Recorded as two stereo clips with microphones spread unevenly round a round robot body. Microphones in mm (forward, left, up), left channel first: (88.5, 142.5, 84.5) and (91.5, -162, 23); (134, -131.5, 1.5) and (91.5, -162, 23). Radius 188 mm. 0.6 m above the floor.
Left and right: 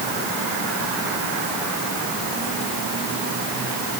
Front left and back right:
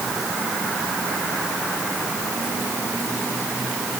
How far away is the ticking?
No ticking in this recording.